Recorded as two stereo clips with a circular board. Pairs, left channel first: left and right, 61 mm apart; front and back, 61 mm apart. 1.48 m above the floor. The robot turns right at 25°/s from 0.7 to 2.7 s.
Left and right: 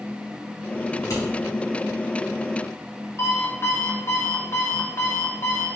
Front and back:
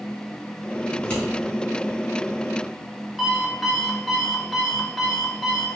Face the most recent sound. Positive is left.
turn(degrees=90)